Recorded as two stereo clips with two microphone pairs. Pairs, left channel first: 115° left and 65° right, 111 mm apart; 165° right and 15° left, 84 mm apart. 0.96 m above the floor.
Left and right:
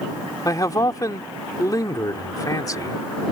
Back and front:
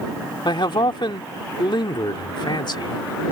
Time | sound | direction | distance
0.5 | a man speaking | 170° left | ?